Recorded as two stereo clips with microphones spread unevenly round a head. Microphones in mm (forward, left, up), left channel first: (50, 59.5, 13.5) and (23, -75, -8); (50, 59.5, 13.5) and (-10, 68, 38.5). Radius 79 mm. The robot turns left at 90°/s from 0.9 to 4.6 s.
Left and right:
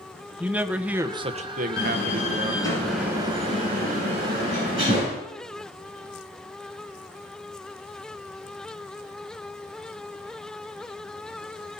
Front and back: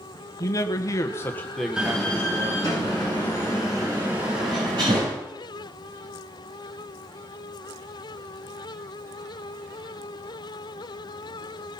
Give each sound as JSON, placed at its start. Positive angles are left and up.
{"t": 0.4, "sound": "a man speaking", "azimuth_deg": -25, "distance_m": 1.3}
{"t": 1.8, "sound": "a door slam", "azimuth_deg": 95, "distance_m": 10.0}